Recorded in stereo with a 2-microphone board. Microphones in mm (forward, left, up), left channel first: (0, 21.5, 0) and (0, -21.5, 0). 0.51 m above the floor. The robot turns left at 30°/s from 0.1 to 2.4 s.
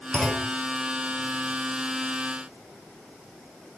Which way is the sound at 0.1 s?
15° left (ahead or behind).